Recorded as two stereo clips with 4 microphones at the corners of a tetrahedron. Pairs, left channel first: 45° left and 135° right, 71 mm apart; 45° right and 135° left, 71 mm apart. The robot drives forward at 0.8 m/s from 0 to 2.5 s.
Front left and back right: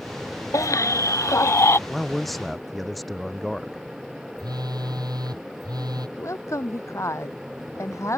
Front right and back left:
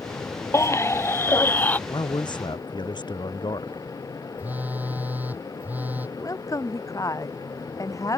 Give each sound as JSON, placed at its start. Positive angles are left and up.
{"t": 0.5, "sound": "a baby crying", "azimuth_deg": 5}
{"t": 1.9, "sound": "a man speaking", "azimuth_deg": -45}
{"t": 4.4, "sound": "a phone buzzing", "azimuth_deg": -160}
{"t": 6.2, "sound": "a woman speaking", "azimuth_deg": -5}